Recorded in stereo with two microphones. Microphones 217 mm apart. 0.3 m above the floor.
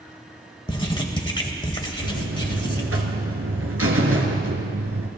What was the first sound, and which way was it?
Writing, 20° left (ahead or behind).